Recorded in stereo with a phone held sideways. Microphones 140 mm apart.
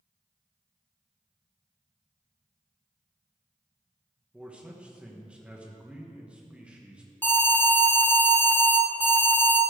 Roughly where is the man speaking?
Centre.